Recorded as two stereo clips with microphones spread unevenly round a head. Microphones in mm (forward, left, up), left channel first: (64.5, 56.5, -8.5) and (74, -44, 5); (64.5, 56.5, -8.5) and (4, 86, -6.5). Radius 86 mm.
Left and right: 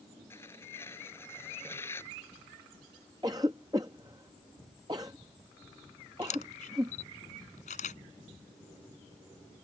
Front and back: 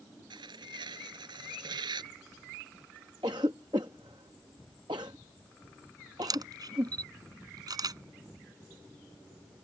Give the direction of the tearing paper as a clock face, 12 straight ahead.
6 o'clock.